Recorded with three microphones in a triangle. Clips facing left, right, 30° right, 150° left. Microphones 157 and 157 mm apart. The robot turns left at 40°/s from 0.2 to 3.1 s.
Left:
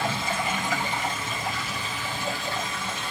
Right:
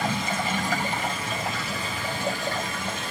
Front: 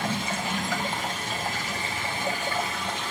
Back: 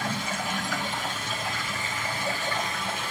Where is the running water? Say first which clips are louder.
Right 1 dB, front 2 dB; 20° right, 3.5 m; by 3.1 s 135° right, 3.5 m.